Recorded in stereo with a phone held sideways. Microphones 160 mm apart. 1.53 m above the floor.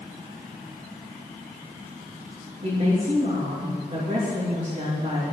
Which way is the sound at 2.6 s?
40° right (ahead or behind).